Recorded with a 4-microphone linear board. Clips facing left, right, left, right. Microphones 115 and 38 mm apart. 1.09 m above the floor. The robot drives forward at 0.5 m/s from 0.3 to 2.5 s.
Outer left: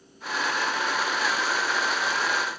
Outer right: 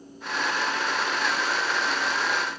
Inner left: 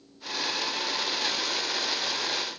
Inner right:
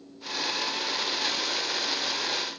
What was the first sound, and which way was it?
Only background noise.